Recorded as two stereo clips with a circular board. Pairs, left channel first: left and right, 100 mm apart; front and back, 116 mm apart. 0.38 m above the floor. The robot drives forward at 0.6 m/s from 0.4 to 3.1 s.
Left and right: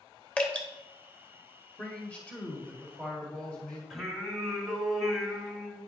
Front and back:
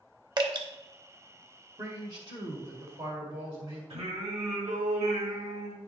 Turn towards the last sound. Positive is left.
turn(degrees=180)